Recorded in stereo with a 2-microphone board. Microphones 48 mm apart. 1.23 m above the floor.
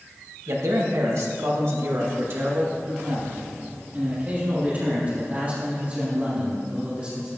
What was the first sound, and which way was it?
A man speaking, 80° right.